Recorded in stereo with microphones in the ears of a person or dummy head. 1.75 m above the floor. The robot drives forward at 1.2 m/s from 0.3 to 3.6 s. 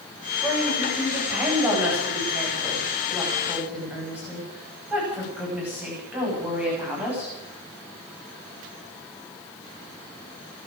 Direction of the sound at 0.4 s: 10° right (ahead or behind).